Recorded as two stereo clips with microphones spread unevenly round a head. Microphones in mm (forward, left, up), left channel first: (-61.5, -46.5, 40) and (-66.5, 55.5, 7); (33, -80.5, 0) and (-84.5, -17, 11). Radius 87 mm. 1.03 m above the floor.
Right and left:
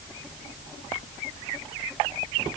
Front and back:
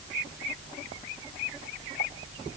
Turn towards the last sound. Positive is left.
No sound to turn to.